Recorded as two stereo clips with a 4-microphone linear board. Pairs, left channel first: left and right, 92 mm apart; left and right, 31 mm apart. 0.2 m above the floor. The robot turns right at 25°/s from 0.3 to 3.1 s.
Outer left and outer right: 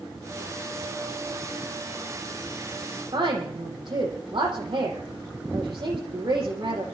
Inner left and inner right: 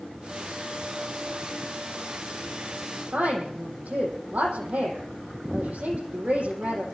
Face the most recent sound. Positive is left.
turn(degrees=-60)  # may be behind; listen again after turning